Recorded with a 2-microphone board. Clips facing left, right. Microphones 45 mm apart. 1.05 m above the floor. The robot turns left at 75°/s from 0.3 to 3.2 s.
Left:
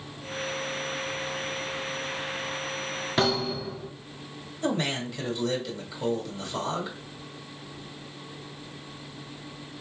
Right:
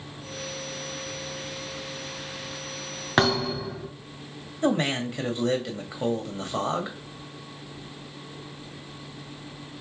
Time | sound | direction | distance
3.2 | a thud | 65° right (ahead or behind) | 3.5 m
4.6 | a man speaking | 40° right (ahead or behind) | 2 m